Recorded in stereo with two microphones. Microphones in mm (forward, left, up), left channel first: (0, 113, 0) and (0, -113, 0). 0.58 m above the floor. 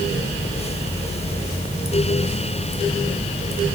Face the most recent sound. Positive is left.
No sound to turn to.